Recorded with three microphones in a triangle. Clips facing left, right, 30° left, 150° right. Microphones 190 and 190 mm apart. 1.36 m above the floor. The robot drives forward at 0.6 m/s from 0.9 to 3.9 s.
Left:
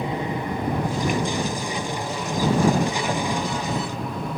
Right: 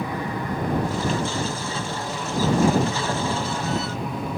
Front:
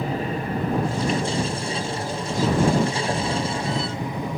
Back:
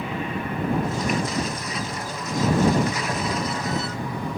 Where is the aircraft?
35° left; by 4.4 s 10° right.